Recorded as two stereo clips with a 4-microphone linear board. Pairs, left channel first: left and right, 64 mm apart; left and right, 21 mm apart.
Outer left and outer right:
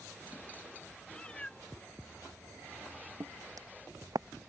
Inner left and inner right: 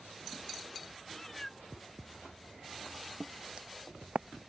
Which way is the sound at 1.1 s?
20° left (ahead or behind).